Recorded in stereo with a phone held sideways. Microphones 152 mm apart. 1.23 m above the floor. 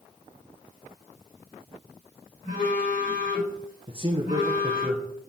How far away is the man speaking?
About 1.0 m.